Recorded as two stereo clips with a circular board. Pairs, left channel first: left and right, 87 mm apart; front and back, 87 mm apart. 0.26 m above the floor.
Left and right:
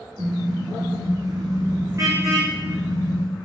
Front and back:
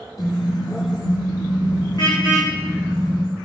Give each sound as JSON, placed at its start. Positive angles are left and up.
{"t": 0.2, "sound": "a car horn", "azimuth_deg": -45, "distance_m": 5.0}